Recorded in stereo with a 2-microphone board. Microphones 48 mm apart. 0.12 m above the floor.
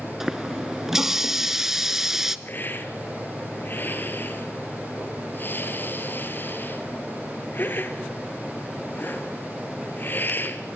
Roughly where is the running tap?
Centre.